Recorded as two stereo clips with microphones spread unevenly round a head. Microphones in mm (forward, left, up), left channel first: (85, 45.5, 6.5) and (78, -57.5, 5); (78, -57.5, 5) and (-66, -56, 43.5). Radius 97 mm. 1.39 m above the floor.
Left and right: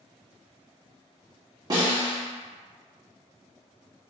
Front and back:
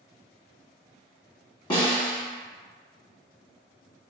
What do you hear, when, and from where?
1.7 s a snare drum: 70° right, 1.0 m